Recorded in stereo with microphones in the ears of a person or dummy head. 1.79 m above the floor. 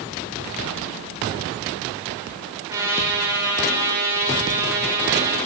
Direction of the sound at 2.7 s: 15° right (ahead or behind).